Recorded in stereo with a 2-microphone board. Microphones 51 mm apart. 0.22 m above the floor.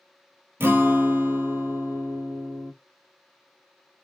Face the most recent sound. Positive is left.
turn(degrees=-50)  # may be behind; listen again after turning